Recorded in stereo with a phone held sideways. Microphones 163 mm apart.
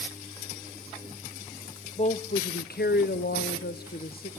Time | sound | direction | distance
2.0 | a woman speaking | 40° left (ahead or behind) | 0.7 m